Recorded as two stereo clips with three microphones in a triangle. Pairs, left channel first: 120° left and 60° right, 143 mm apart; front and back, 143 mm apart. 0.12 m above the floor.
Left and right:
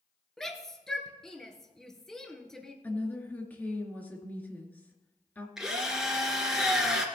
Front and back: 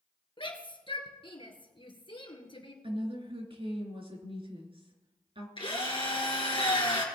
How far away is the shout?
About 1.7 m.